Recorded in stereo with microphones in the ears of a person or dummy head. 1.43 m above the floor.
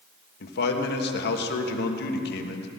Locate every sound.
0.4 s a man speaking: 60° left (ahead or behind), 1.6 m